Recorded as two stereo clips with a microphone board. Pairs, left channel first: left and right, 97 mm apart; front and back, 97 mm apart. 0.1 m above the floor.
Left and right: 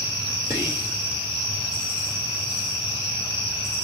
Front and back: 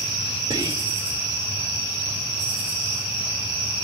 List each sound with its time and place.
0.5 s whispering: 160° right, 3 m